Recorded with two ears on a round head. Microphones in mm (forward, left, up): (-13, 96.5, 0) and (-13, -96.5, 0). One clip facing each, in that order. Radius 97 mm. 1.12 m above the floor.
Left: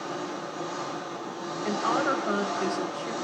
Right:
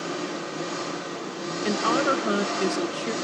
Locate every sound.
0.0 s an engine running: 30° right (ahead or behind), 0.9 m
1.6 s a woman speaking: 45° right (ahead or behind), 1.2 m